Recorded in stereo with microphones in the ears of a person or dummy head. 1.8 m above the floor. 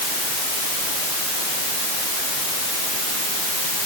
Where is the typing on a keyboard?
I don't hear typing on a keyboard.